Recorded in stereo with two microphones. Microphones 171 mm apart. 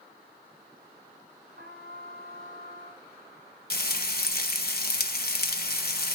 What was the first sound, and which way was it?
A trumpet, 65° right (ahead or behind).